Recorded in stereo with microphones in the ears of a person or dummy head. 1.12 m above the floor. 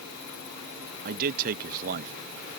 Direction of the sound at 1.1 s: 60° right (ahead or behind).